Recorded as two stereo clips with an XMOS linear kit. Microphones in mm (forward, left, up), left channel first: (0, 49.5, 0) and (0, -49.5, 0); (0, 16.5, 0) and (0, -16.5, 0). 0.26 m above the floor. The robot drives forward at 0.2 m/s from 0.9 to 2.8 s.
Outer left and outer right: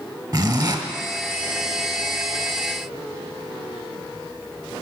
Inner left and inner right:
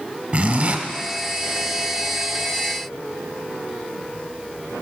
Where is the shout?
No shout in this recording.